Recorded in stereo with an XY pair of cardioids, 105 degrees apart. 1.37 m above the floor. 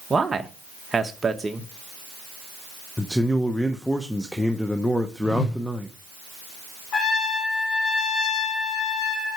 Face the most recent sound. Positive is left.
turn(degrees=65)